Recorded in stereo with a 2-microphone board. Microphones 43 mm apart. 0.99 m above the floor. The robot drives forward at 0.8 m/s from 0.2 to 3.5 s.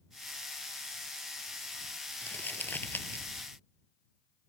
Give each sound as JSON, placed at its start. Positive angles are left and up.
{"t": 2.2, "sound": "crumpling", "side_deg": 50}